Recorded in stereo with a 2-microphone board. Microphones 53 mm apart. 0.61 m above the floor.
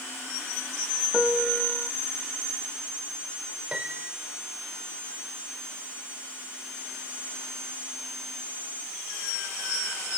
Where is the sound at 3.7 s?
20° right (ahead or behind).